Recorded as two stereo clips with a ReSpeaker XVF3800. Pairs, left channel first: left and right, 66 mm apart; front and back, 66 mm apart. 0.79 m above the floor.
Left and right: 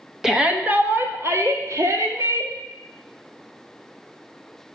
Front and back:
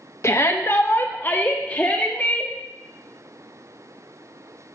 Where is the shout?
10° right, 1.2 m; by 2.5 s 70° right, 2.5 m.